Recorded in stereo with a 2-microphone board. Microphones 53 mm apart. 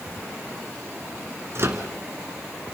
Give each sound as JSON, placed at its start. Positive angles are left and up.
{"t": 1.6, "sound": "a microwave", "side_deg": -55, "distance_m": 2.0}